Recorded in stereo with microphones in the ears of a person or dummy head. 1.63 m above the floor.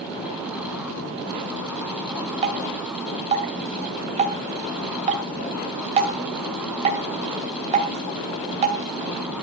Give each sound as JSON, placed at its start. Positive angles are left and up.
{"t": 2.4, "sound": "dripping", "side_deg": -35, "distance_m": 1.9}